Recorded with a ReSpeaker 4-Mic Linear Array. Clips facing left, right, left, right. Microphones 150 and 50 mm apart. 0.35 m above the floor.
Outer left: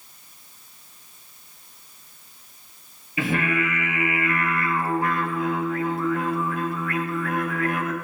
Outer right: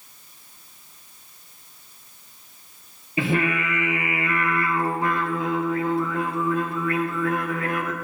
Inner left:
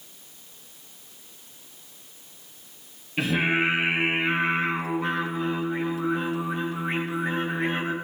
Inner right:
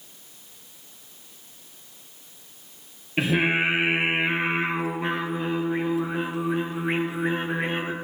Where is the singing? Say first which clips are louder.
Outer right 1 dB, inner right 1 dB; 30° right (ahead or behind), 2.5 m.